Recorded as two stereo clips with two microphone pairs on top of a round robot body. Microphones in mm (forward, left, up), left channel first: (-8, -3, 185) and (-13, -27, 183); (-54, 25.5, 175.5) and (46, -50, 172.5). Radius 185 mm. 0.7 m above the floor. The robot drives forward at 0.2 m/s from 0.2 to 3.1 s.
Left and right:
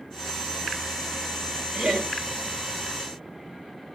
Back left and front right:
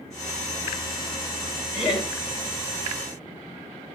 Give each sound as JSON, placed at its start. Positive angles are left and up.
{"t": 1.7, "sound": "laughter", "azimuth_deg": -120, "distance_m": 2.5}